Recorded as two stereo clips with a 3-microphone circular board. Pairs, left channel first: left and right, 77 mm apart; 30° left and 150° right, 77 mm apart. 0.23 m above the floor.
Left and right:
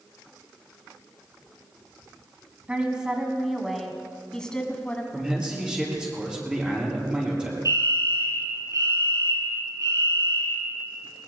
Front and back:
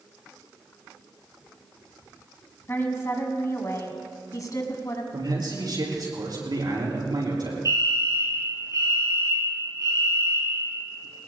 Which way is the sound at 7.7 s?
120° right.